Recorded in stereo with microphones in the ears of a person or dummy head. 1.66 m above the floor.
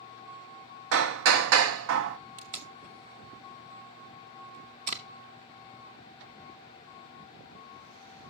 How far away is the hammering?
About 0.9 m.